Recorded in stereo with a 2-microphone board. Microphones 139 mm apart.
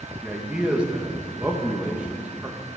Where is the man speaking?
10° right (ahead or behind), 1.4 m.